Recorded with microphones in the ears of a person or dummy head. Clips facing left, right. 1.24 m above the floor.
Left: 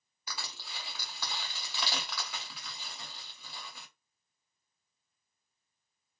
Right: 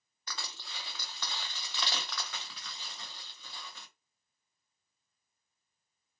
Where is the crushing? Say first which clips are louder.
Left 1 dB; 10° left (ahead or behind), 0.8 m.